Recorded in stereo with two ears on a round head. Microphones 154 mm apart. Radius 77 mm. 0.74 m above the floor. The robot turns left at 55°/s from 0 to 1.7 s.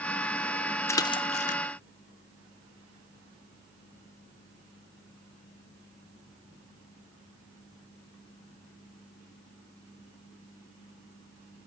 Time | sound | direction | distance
0.9 | a splash | 15° left (ahead or behind) | 0.5 m